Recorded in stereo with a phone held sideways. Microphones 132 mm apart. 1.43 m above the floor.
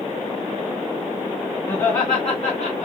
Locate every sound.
1.7 s laughter: 30° left (ahead or behind), 2 m; by 2.9 s 65° left (ahead or behind), 1.9 m